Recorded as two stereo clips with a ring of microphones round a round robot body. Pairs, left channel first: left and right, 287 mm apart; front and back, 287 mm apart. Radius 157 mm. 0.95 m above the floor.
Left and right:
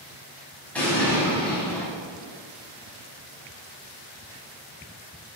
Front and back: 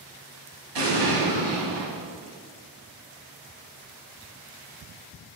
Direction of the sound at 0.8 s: 175° left.